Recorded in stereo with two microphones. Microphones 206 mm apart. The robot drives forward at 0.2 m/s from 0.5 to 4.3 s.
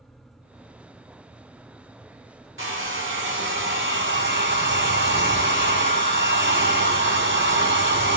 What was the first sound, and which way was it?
A hair dryer, 75° right (ahead or behind).